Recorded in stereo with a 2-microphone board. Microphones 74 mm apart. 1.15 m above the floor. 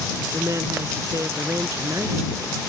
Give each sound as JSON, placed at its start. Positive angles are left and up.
{"t": 0.3, "sound": "a woman speaking", "side_deg": -45}